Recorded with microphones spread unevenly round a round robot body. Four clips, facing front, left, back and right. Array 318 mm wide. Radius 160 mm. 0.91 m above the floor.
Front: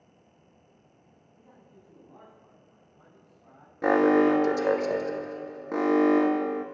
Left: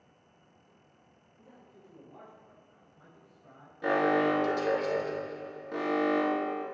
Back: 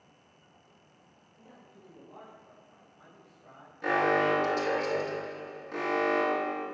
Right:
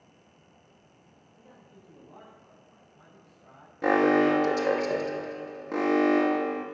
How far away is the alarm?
About 1.3 m.